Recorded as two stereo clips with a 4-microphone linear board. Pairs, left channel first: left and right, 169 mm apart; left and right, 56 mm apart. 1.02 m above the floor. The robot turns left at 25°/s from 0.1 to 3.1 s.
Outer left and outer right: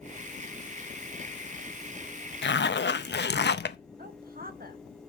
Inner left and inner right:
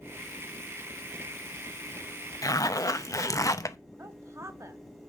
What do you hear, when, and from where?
2.4 s a zipper: 85° left, 0.6 m; by 3.8 s 75° left (ahead or behind), 0.6 m
4.0 s a woman speaking: 55° right (ahead or behind), 1.5 m